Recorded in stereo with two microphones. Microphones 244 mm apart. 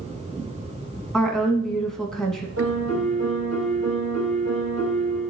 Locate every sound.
1.1 s a woman speaking: centre (ahead or behind), 1.3 m
2.6 s a piano: 80° right, 4.5 m